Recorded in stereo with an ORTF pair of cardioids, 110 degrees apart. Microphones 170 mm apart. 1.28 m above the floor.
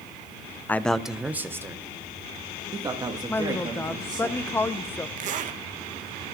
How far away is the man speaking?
About 0.5 m.